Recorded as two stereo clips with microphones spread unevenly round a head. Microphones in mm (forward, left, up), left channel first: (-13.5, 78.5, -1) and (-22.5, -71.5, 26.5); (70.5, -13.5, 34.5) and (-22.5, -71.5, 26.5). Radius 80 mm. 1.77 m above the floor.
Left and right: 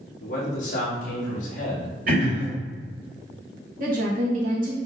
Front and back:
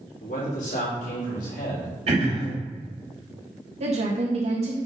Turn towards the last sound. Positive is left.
turn(degrees=-125)